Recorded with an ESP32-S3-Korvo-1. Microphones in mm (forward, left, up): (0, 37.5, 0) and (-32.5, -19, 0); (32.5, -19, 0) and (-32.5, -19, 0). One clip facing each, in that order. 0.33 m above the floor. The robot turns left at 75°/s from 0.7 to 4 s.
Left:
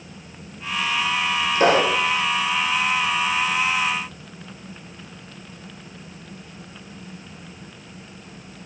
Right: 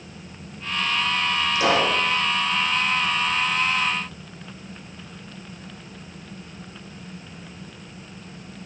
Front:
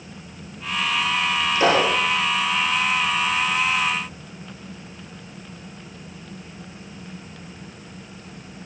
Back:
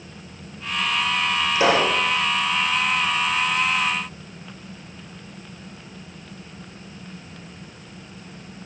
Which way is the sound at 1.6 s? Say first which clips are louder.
Left 4 dB, even; 110° left.